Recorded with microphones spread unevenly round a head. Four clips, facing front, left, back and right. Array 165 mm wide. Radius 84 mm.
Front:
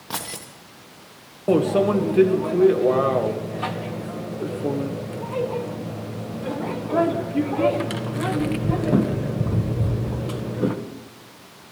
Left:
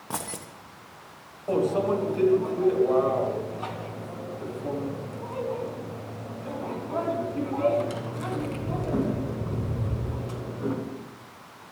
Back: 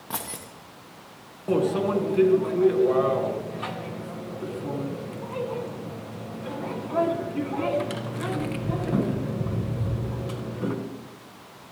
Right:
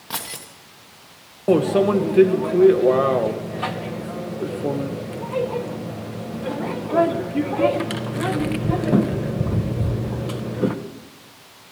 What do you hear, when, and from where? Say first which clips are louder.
0.1 s keys jangling: right 1 dB, front 2 dB; 40° left, 1.2 m
1.5 s a microwave: right 7 dB, front 5 dB; 65° right, 1.5 m